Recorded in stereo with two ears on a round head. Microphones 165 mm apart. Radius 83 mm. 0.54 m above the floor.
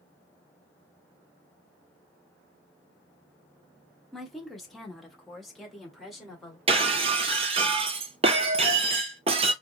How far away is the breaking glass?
About 0.6 m.